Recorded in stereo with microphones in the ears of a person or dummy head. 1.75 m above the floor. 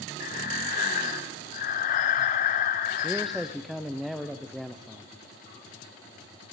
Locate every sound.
0.2 s breathing: 35° left (ahead or behind), 0.6 m
3.0 s a man speaking: centre (ahead or behind), 0.5 m